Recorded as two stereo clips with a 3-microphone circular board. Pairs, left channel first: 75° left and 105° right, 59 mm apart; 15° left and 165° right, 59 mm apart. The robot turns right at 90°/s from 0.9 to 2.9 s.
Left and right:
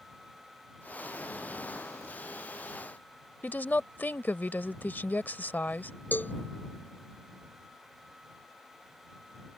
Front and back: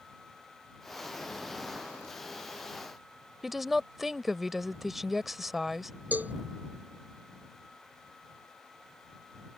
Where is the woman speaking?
110° left.